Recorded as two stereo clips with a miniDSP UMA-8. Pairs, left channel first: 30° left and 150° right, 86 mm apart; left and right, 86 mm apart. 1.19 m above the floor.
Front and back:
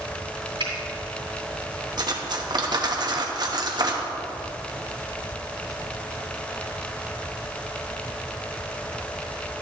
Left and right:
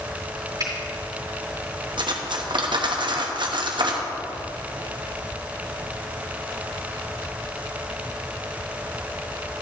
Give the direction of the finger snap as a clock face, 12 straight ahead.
4 o'clock.